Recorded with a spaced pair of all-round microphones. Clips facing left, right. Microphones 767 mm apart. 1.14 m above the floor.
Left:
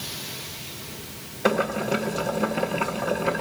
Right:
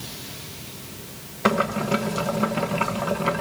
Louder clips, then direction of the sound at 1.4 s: Even; 35° right (ahead or behind).